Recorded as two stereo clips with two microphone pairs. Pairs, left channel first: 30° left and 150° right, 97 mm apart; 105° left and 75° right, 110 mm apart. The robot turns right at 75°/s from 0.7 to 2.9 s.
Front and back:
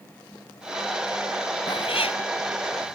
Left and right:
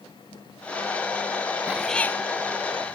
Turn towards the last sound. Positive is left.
turn(degrees=90)